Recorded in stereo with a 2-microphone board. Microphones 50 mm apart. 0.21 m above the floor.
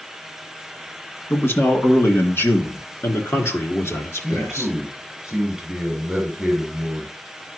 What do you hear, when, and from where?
1.3 s a man speaking: 50° left (ahead or behind), 1.9 m; by 4.7 s 70° left (ahead or behind), 3.5 m
4.2 s a man speaking: 5° left (ahead or behind), 3 m